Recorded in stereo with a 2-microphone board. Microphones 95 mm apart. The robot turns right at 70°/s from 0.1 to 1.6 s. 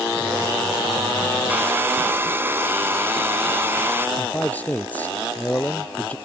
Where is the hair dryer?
15° right (ahead or behind); by 4.1 s 20° right (ahead or behind).